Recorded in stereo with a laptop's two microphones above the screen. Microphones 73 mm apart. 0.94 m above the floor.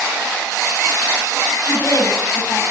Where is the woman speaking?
50° left (ahead or behind), 6.5 m.